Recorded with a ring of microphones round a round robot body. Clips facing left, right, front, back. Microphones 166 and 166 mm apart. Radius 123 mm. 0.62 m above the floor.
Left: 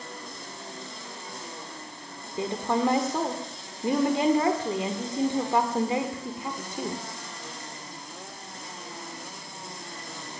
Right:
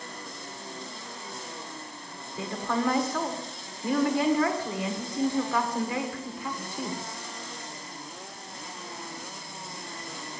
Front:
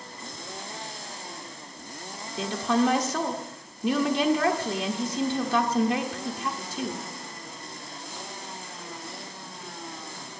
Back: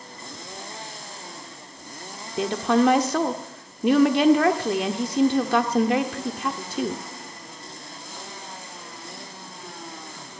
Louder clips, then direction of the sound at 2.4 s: Left 3 dB, back 4 dB; 160° left.